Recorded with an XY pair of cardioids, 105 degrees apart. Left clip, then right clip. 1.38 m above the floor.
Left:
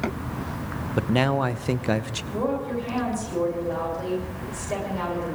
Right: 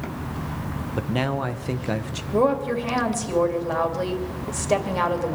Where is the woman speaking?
60° right, 3 m.